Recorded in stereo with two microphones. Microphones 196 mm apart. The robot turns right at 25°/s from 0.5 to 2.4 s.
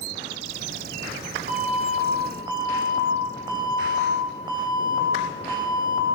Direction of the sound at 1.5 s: 35° right (ahead or behind).